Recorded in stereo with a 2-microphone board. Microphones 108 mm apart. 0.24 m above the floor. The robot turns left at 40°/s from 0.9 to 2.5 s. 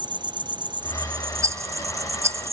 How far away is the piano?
No piano in this recording.